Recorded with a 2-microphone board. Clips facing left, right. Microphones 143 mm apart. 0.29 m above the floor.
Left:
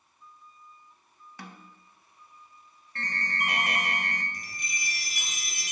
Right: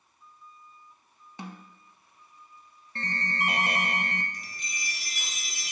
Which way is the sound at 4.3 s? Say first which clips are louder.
Left 2 dB; 55° left (ahead or behind).